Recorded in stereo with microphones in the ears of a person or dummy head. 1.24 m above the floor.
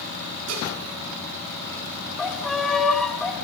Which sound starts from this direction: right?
Dishes clattering, at 0.5 s.